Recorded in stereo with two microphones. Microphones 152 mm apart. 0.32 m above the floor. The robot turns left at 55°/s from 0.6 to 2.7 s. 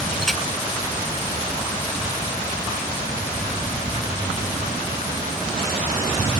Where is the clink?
Centre (ahead or behind).